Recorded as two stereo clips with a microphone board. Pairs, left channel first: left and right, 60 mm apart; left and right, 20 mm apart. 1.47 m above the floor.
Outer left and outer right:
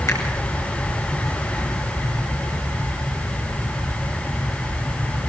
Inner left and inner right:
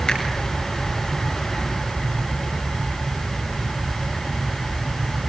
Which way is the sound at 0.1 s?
55° left (ahead or behind).